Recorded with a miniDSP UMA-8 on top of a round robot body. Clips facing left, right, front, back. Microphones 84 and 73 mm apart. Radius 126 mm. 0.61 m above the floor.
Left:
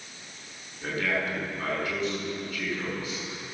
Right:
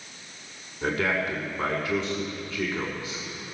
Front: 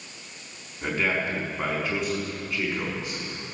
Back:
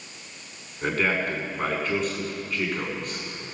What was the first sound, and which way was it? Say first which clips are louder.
A man speaking: right 3 dB, back 2 dB; 85° right.